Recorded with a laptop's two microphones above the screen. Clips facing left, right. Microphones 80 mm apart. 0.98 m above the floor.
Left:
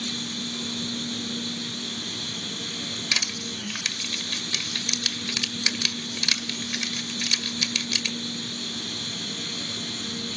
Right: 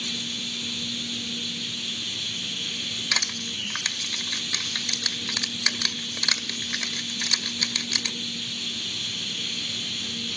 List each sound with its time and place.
0.0 s a machine running: 35° left (ahead or behind), 3 m
3.1 s crushing: 30° right (ahead or behind), 1.3 m